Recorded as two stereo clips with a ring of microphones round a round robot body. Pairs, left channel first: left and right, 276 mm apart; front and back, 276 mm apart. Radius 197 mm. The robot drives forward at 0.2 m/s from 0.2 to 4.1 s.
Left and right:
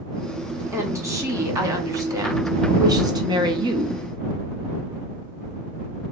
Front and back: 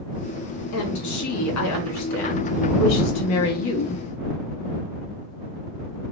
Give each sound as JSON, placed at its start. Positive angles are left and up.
{"t": 0.7, "sound": "a woman speaking", "azimuth_deg": -10, "distance_m": 1.6}